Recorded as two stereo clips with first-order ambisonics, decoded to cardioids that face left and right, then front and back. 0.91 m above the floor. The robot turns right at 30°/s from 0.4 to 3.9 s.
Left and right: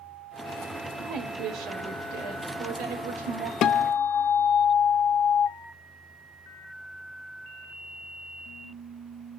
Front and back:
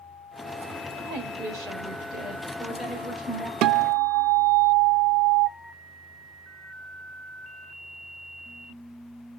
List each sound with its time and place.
1.0 s a woman speaking: 150° right, 4 m; by 3.5 s 75° right, 4 m
3.6 s a guitar: 135° left, 0.6 m; by 5.5 s 145° left, 0.6 m